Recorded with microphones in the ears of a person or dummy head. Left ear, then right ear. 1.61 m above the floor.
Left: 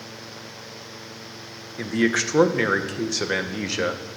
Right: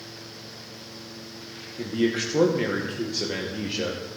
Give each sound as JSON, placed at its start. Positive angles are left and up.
{"t": 1.8, "sound": "a man speaking", "side_deg": 60, "distance_m": 1.3}